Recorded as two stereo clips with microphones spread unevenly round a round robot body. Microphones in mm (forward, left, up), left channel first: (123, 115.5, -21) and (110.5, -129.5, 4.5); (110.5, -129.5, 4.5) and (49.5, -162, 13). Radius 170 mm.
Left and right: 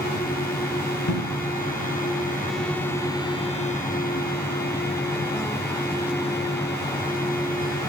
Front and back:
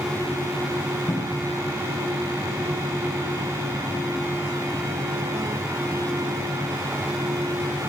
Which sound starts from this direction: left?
A cupboard door, at 1.1 s.